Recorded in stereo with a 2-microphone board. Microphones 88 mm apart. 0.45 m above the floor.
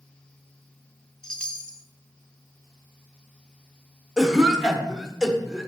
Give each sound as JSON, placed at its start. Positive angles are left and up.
{"t": 1.2, "sound": "a chime", "side_deg": 10, "distance_m": 0.7}
{"t": 4.2, "sound": "a cough", "side_deg": -5, "distance_m": 0.9}